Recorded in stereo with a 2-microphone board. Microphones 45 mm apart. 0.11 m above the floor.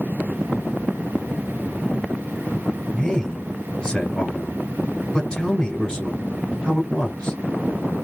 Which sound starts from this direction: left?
A man speaking, at 2.9 s.